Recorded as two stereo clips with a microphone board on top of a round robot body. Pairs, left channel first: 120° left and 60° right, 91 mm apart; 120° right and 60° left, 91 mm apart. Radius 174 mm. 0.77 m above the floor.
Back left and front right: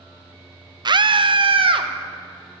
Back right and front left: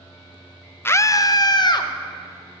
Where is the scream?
60° right, 0.6 m; by 1.9 s 80° right, 1.3 m.